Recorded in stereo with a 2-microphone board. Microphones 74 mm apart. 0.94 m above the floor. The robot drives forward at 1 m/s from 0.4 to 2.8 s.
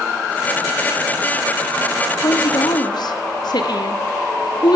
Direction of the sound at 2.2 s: 70° left (ahead or behind).